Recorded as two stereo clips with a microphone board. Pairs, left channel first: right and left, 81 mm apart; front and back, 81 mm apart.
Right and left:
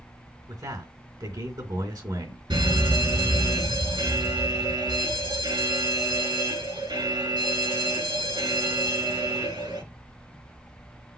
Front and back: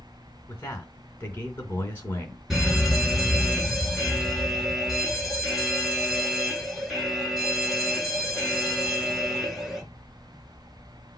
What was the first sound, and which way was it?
A man speaking, 65° left.